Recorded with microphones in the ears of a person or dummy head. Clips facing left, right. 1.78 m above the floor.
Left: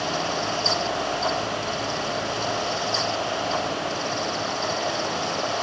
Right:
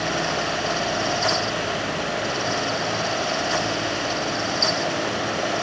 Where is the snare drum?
No snare drum in this recording.